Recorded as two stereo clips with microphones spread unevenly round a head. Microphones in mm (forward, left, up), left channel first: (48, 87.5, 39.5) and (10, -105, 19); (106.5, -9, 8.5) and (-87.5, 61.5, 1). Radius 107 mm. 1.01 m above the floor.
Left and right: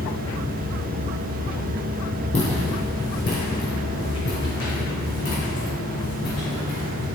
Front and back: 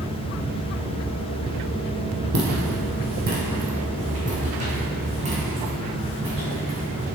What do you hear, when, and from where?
2.3 s footsteps: 130° left, 1.7 m; by 7.0 s 95° left, 3.5 m